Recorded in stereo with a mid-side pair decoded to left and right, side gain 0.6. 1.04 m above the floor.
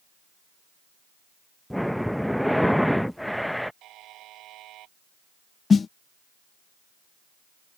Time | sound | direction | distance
1.7 | breathing | straight ahead | ?
3.8 | a buzzer | 60° right | ?
5.7 | a snare drum | 30° left | ?